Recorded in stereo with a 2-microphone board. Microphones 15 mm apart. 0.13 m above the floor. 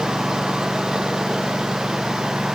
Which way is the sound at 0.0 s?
75° right (ahead or behind).